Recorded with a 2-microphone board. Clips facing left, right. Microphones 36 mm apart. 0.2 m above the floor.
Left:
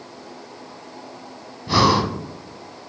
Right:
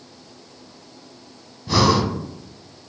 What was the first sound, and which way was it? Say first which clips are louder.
Breathing: left 1 dB; 10° left (ahead or behind).